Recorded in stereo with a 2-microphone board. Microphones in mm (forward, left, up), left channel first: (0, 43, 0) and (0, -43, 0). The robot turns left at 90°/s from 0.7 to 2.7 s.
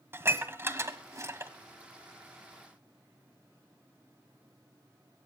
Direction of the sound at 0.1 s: 30° right (ahead or behind).